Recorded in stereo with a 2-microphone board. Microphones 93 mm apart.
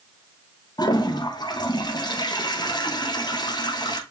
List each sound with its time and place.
0.8 s a toilet flushing: 45° left (ahead or behind), 0.7 m